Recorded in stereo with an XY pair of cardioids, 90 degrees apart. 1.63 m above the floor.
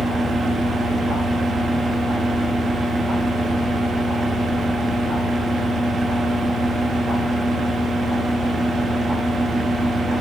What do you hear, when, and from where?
0.0 s a fan: 60° right, 1.1 m